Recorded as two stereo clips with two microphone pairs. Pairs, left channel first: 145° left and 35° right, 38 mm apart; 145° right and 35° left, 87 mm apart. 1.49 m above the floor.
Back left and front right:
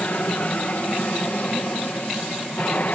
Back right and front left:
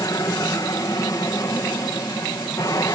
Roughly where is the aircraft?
Behind.